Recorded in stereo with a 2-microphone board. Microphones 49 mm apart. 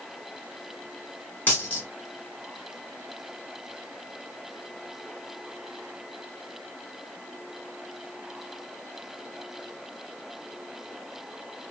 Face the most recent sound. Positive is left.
turn(degrees=35)  # may be behind; listen again after turning